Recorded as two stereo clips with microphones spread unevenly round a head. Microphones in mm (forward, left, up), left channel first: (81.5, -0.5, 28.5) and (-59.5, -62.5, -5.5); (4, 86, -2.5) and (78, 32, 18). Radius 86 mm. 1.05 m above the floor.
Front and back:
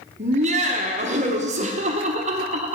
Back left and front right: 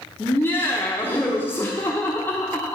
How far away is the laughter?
About 0.7 m.